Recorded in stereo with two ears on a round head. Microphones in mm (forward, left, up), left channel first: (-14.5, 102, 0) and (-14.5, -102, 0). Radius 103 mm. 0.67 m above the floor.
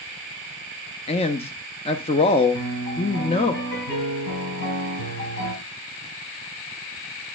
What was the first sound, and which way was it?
A man speaking, 25° left (ahead or behind).